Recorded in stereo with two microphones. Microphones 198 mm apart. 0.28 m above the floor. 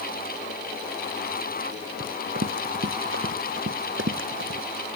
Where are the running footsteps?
75° right (ahead or behind); by 4.6 s 80° right.